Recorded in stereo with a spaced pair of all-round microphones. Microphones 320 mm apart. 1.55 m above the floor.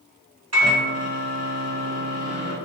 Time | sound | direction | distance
0.5 | a microwave | 50° right (ahead or behind) | 1.1 m